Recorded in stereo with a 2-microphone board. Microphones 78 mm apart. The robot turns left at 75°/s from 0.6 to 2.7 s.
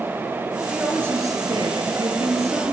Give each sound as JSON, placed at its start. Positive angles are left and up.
{"t": 0.7, "sound": "a woman speaking", "azimuth_deg": -5, "distance_m": 3.5}